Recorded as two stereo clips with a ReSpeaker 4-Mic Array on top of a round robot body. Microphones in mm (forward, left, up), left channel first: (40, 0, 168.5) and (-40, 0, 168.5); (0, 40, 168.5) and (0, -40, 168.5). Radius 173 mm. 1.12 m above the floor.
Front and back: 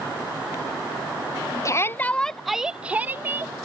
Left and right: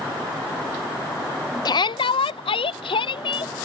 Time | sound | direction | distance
1.6 | a shout | 50° left | ?